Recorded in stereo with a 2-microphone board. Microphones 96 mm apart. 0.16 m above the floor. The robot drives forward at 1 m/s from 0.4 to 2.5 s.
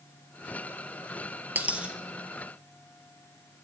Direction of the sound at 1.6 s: 20° right (ahead or behind).